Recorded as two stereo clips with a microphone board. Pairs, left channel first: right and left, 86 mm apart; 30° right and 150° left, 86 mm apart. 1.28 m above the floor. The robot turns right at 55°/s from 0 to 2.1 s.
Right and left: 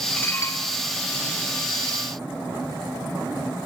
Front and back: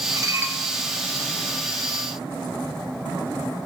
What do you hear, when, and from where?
0.2 s dishes clattering: 160° right, 1.1 m; by 0.6 s 135° right, 1.1 m